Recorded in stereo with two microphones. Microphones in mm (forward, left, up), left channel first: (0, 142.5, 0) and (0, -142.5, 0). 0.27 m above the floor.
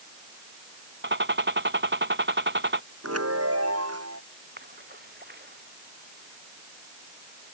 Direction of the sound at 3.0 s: 60° right (ahead or behind).